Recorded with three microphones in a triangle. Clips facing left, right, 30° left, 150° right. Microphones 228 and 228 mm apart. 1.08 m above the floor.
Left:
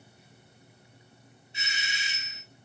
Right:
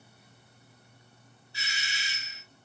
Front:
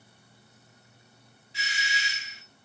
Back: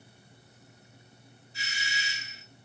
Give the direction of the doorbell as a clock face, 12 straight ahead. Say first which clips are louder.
Left 2 dB, front 3 dB; 11 o'clock.